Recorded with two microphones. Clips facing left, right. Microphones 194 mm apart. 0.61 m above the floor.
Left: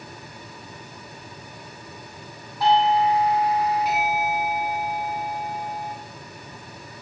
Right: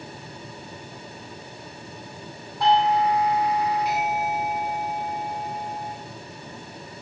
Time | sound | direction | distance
2.6 | a doorbell | centre (ahead or behind) | 3 m